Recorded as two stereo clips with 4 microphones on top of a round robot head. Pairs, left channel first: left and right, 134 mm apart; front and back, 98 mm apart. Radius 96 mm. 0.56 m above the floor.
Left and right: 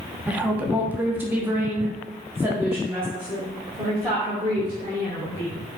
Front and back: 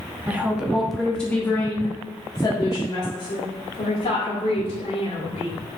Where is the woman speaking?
150° right, 1.3 m; by 5.6 s 10° right, 3 m.